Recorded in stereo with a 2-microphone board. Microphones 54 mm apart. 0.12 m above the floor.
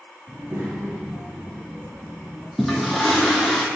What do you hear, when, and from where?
0.3 s a child speaking: 40° right (ahead or behind), 1.5 m; by 2.5 s 35° right (ahead or behind), 2.5 m
2.6 s a toilet flushing: centre (ahead or behind), 1.0 m